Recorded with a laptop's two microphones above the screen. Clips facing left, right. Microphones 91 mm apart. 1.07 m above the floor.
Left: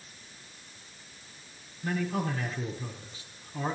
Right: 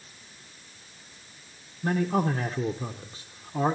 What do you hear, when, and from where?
1.8 s a man speaking: 40° right (ahead or behind), 0.6 m